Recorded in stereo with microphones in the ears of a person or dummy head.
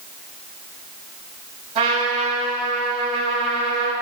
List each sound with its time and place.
1.8 s a trumpet: 35° right (ahead or behind), 4.5 m